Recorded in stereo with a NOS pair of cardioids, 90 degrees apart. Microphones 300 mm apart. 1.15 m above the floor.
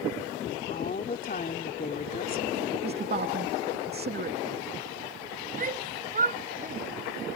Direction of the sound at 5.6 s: 30° right.